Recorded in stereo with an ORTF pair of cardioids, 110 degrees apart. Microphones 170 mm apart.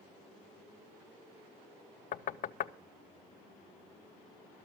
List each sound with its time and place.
2.1 s knocking: 50° left, 0.7 m